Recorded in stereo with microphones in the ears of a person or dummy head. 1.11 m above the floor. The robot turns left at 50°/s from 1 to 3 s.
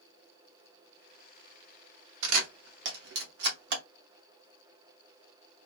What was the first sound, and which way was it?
A camera shutter, 80° right.